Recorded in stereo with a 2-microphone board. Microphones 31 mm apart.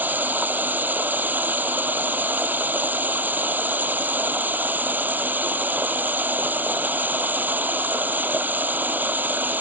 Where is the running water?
70° right (ahead or behind).